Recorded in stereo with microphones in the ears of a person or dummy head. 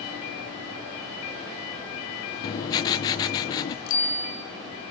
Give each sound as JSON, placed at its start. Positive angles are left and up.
{"t": 2.4, "sound": "writing", "side_deg": 25, "distance_m": 0.7}
{"t": 3.9, "sound": "a bicycle bell", "side_deg": 70, "distance_m": 3.5}